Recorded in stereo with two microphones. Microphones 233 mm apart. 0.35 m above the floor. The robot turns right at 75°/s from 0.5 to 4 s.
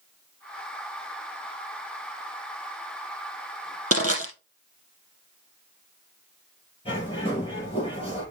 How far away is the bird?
About 6.5 m.